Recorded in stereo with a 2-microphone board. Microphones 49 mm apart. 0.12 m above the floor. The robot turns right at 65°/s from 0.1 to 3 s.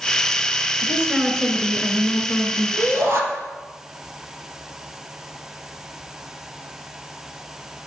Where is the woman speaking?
25° right (ahead or behind), 1.7 m; by 2.7 s 25° left (ahead or behind), 1.7 m.